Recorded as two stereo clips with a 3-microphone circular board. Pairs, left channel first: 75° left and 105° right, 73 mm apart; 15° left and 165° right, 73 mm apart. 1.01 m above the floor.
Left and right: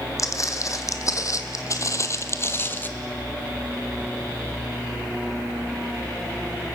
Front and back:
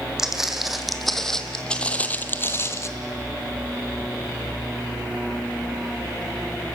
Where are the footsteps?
115° left, 2.5 m; by 2.9 s 30° left, 1.2 m.